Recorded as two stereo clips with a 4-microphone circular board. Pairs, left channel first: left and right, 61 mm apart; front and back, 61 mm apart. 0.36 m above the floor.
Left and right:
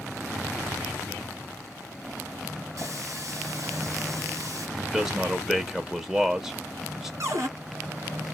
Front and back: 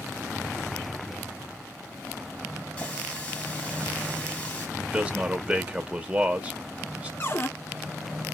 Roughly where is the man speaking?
Behind.